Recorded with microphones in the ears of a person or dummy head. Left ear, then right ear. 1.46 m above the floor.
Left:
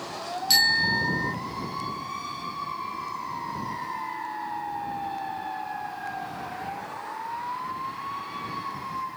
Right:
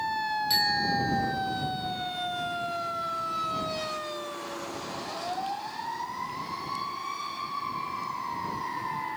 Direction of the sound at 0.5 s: 35° left (ahead or behind).